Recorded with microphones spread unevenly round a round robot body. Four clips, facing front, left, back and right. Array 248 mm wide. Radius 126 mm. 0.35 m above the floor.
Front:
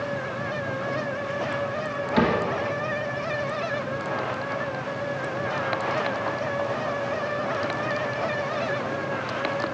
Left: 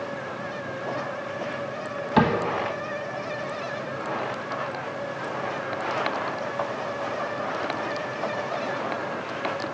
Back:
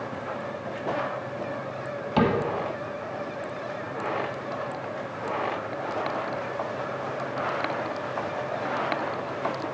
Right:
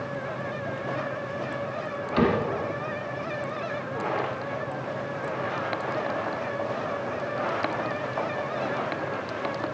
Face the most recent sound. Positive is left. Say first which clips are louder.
# left 2 dB, front 1 dB
turn(degrees=105)